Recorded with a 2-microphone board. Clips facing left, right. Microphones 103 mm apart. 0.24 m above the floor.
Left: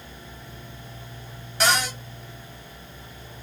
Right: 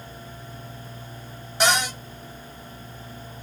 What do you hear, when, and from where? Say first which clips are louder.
1.6 s a cupboard door: right 1 dB; 20° right (ahead or behind), 1.5 m